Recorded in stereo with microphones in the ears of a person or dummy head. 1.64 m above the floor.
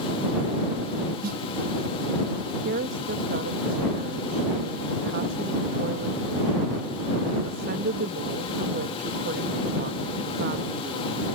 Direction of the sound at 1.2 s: 50° right (ahead or behind).